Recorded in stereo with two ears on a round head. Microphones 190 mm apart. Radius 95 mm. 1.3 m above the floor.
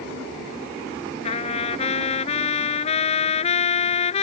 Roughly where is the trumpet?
Left.